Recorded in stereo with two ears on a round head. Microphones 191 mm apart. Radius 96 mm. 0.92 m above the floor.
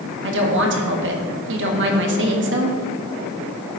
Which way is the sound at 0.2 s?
60° right (ahead or behind).